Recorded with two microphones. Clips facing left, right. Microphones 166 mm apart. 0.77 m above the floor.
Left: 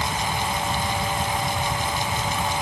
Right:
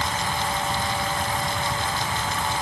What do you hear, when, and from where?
Only background noise.